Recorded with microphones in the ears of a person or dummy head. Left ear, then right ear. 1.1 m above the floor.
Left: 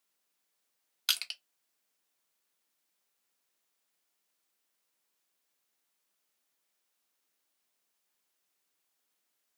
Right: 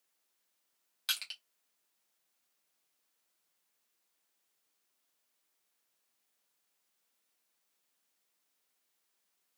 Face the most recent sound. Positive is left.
turn(degrees=25)  # may be behind; listen again after turning